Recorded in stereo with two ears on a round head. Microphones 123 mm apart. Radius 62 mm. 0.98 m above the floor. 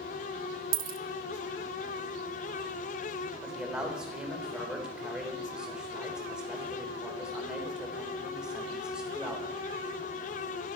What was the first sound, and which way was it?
A dropped coin, 65° right (ahead or behind).